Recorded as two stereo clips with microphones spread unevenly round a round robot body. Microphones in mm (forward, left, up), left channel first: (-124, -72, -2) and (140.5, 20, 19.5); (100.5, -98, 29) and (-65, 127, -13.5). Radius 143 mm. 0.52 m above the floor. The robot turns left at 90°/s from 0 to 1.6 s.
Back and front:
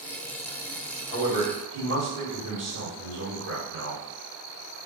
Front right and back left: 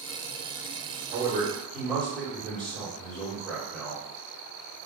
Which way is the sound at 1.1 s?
85° left.